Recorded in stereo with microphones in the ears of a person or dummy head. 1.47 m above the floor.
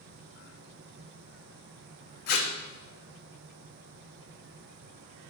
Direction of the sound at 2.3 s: 60° left (ahead or behind).